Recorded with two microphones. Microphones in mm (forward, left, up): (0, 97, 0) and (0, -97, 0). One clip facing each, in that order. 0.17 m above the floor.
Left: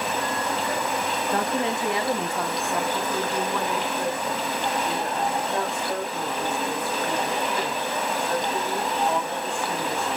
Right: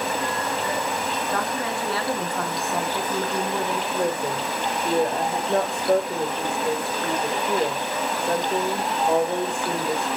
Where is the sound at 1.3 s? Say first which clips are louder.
Left 5 dB; 30° left (ahead or behind), 2.5 m; by 3.8 s 35° right (ahead or behind), 2 m.